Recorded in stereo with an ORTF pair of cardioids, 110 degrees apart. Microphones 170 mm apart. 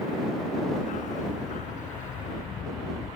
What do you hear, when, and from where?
0.8 s a dog barking: 55° left; by 3.1 s 50° left